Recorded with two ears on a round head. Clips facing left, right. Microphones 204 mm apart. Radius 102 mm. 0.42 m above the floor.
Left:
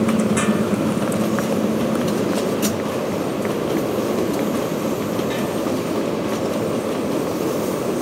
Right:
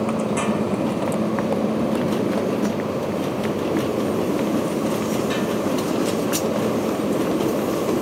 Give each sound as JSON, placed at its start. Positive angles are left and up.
{"t": 0.0, "sound": "a motorcycle", "side_deg": 25}